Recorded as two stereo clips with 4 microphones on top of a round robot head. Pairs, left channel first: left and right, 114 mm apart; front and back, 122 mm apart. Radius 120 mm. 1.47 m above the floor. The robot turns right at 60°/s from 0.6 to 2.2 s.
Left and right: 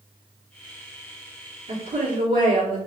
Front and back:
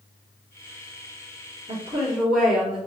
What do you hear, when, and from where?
1.7 s a woman speaking: 130° right, 1.7 m; by 2.8 s 100° right, 1.7 m